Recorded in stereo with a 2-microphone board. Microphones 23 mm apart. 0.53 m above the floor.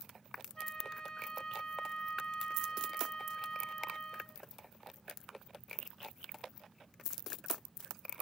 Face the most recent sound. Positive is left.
turn(degrees=35)  # may be behind; listen again after turning